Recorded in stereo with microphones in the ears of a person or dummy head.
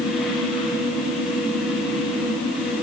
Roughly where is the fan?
Centre.